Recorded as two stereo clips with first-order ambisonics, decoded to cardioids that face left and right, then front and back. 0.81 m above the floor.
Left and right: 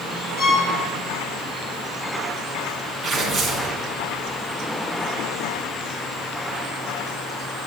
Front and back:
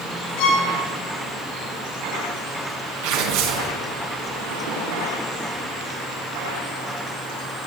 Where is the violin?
30° left, 5 m.